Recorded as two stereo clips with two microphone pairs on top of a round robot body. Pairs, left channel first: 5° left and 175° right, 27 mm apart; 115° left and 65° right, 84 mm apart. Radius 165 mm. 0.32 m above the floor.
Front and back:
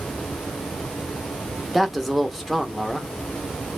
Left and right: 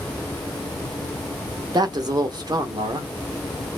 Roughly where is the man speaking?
Ahead right.